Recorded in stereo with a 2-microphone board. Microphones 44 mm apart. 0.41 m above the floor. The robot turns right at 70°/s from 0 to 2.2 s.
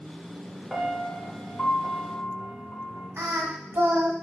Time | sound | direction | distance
0.7 | a piano | 5° right | 0.8 m
3.2 | singing | 75° right (ahead or behind) | 1.0 m